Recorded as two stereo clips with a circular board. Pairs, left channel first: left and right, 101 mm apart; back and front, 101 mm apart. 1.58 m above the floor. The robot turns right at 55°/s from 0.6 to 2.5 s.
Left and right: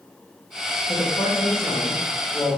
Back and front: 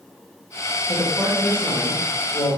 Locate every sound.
0.8 s a man speaking: 65° left, 4.5 m; by 2.6 s 160° left, 4.5 m